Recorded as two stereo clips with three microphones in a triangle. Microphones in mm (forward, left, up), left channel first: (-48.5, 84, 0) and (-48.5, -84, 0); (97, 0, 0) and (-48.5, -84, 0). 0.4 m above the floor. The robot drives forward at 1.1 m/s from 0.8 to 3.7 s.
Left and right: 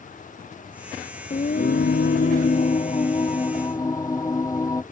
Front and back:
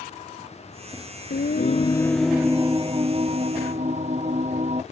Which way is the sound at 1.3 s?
45° left.